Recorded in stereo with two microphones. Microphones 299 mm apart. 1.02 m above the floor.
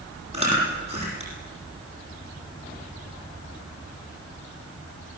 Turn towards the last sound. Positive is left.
turn(degrees=-20)  # may be behind; listen again after turning